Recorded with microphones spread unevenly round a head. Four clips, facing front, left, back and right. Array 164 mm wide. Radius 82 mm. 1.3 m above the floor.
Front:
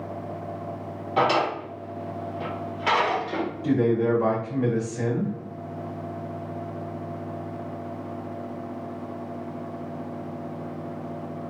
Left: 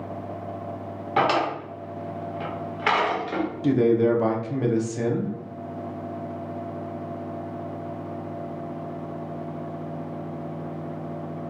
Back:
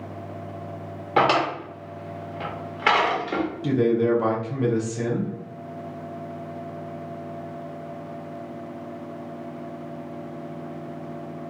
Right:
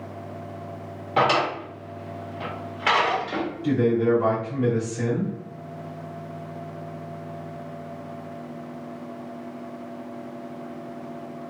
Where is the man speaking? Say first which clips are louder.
Left 2 dB, back 1 dB; 115° left, 0.8 m.